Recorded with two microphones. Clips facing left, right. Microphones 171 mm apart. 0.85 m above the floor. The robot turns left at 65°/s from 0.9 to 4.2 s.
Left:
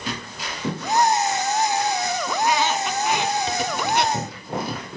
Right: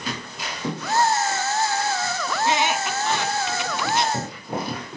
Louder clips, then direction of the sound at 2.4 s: Even; 35° right (ahead or behind).